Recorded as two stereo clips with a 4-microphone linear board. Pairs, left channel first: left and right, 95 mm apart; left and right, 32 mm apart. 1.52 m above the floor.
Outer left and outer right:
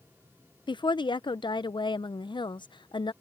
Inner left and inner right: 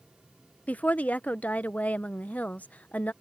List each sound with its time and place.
0.7 s a woman speaking: 60° left (ahead or behind)